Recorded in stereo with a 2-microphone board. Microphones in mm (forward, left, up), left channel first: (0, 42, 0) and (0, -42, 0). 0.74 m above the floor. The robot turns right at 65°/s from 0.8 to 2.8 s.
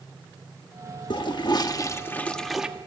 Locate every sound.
1.1 s a toilet flushing: 90° left, 1.1 m; by 2.7 s 170° right, 1.1 m